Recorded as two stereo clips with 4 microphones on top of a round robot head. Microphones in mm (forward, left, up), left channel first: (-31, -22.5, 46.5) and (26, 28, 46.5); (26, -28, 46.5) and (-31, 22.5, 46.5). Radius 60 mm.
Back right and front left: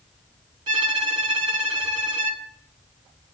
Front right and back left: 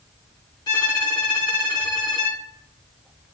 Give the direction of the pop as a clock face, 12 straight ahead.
No pop in this recording.